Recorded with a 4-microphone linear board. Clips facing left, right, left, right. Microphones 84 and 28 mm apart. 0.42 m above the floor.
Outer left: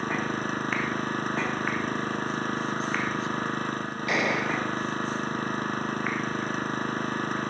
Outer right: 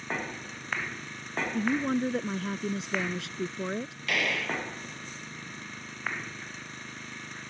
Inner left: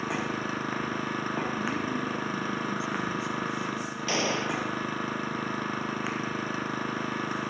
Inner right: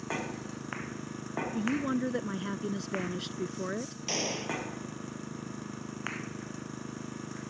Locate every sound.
0.0 s an engine running: 60° left (ahead or behind)
1.5 s a woman speaking: 80° right
4.1 s a gunshot: 20° left (ahead or behind)